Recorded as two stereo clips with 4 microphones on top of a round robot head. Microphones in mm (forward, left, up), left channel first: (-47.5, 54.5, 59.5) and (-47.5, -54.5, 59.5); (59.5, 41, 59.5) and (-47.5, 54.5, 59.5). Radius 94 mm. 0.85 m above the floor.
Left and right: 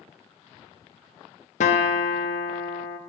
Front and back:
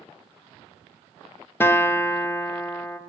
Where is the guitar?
65° left, 0.6 m.